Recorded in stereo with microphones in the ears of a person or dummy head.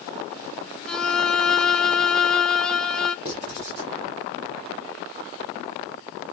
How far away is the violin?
About 0.5 m.